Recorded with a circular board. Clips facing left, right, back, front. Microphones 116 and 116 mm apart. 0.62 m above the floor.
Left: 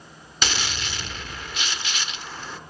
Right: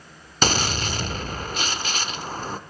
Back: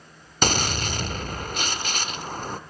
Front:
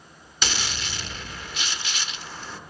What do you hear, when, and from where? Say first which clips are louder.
0.4 s a gunshot: right 6 dB, back 7 dB; 135° right, 0.5 m